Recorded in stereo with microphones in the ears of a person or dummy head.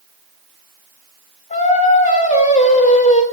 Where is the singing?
30° left (ahead or behind), 3 m.